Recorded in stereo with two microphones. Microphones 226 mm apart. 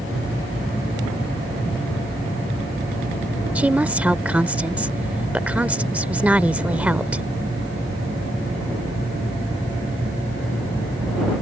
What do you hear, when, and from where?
3.5 s a woman speaking: 5° right (ahead or behind)